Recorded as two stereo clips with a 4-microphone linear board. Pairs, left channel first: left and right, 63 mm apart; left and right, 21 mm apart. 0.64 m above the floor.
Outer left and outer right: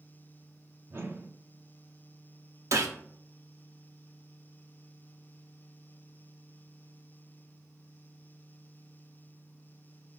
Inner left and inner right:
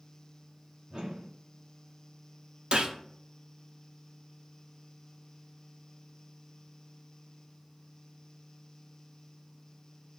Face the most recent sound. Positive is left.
turn(degrees=-60)  # may be behind; listen again after turning